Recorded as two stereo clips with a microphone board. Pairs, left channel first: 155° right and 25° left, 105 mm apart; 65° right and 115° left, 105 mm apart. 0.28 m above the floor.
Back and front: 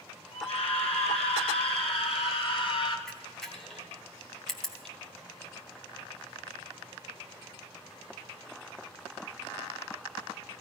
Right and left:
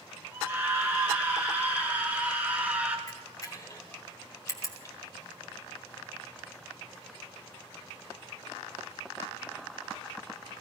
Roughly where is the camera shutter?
Right.